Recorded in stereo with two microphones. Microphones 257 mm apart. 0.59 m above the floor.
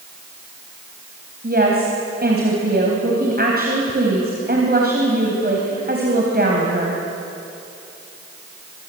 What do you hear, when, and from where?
1.4 s a woman speaking: 40° right (ahead or behind), 3.5 m